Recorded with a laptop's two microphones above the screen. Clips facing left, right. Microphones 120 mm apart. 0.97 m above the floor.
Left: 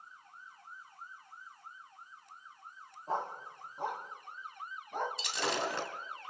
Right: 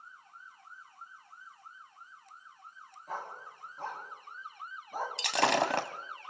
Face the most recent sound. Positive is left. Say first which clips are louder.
# right 7 dB
turn(degrees=-70)  # may be behind; listen again after turning